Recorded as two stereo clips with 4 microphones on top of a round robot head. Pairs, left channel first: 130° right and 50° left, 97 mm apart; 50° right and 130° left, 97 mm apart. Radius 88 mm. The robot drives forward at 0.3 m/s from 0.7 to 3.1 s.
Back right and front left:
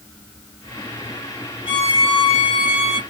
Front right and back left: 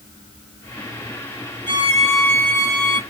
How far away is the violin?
About 1.5 m.